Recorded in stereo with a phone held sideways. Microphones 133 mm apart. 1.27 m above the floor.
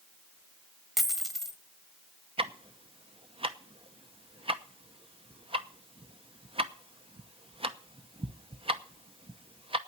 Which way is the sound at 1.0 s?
Centre (ahead or behind).